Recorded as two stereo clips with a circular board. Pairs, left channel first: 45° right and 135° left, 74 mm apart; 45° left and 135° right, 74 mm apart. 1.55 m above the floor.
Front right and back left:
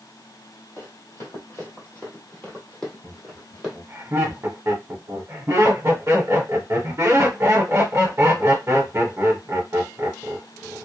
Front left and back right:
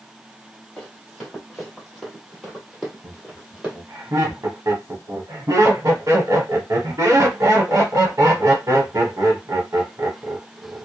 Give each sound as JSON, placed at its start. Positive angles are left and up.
{"t": 0.8, "sound": "running footsteps", "azimuth_deg": -35, "distance_m": 1.9}
{"t": 3.0, "sound": "laughter", "azimuth_deg": -175, "distance_m": 1.0}